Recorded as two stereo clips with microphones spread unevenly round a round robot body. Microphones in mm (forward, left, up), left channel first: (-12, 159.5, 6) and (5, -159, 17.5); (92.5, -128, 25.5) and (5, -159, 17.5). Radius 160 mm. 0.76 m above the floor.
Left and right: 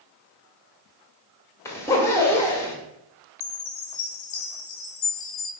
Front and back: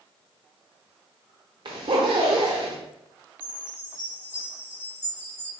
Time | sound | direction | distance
1.6 | a zipper | 175° left | 0.6 m
3.4 | a chime | 80° left | 0.6 m